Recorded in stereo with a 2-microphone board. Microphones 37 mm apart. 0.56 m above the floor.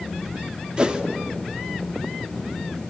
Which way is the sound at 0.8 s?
30° right (ahead or behind).